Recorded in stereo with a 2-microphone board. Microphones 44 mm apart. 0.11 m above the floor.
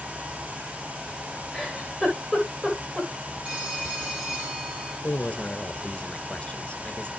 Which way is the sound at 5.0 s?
25° left (ahead or behind).